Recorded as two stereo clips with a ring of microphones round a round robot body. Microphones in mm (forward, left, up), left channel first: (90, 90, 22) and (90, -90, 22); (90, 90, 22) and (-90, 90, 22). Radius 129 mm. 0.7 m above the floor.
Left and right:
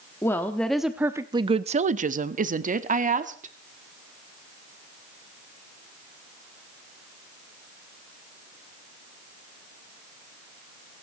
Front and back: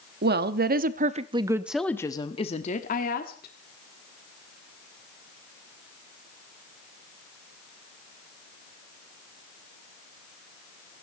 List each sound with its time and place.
0.2 s a woman speaking: 165° left, 1.1 m; by 3.5 s 45° right, 1.7 m